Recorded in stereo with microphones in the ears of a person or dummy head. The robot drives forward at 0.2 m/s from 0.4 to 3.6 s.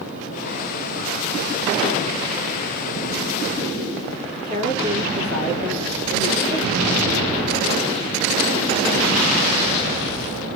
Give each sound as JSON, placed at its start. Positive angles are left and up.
{"t": 4.5, "sound": "a woman speaking", "side_deg": -40, "distance_m": 3.5}